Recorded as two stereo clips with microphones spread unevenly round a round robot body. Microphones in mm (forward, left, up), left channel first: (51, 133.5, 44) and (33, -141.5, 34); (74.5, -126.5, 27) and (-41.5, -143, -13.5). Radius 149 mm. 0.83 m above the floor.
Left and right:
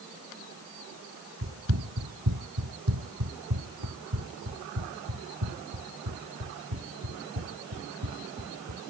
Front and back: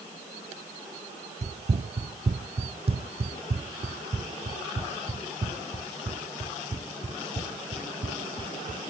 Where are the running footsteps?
140° right; by 8.8 s 125° right.